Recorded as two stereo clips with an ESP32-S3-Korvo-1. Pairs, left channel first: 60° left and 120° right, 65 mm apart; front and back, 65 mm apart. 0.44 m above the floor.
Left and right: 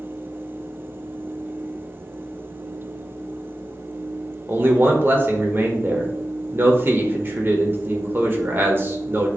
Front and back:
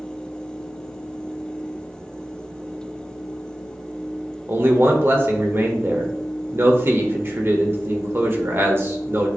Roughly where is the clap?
I don't hear a clap.